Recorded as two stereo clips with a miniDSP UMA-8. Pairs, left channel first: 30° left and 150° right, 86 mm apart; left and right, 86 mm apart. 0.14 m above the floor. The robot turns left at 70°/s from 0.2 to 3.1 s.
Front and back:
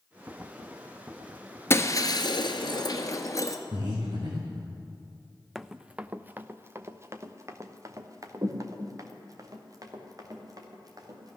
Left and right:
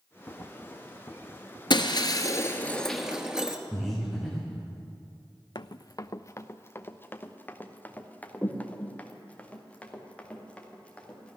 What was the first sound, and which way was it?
Breaking glass, 85° left.